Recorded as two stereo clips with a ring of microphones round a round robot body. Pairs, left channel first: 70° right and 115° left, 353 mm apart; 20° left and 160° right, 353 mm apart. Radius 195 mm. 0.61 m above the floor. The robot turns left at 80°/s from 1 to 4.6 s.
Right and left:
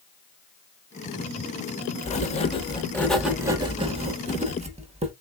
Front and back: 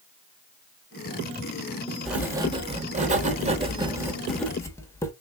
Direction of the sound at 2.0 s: 70° right.